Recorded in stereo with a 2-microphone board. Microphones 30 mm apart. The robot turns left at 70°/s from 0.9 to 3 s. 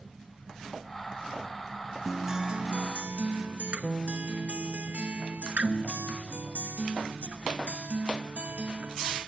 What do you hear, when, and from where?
2.0 s a guitar: 10° right, 1.1 m; by 9.2 s 75° right, 1.1 m